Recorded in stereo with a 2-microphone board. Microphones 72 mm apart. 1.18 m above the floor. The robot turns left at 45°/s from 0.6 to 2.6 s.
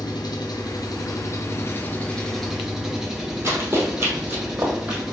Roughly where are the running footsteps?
Right.